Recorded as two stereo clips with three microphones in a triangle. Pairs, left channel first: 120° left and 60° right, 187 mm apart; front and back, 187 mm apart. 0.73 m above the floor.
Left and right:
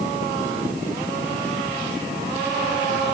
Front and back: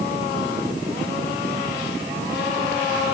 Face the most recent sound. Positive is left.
No sound to turn to.